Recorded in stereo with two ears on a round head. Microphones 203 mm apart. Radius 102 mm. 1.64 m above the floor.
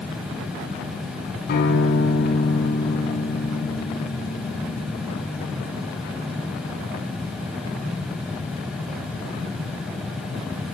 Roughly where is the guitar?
Left.